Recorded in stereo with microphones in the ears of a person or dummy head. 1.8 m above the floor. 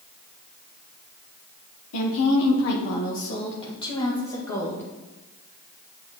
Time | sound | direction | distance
1.9 | a woman speaking | 70° left (ahead or behind) | 1.3 m